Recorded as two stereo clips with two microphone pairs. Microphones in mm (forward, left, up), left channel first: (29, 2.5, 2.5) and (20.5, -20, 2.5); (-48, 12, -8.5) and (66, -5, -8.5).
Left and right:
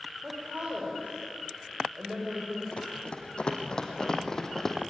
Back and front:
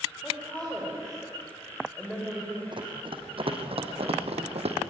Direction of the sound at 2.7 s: 30° left.